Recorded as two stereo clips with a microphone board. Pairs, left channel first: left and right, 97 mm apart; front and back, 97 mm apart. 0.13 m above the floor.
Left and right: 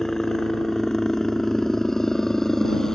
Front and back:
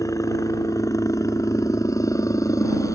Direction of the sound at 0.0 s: 10° left.